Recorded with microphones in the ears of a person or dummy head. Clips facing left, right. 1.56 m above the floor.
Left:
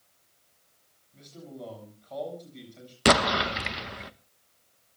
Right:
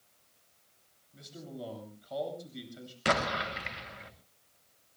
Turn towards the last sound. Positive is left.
turn(degrees=55)  # may be behind; listen again after turning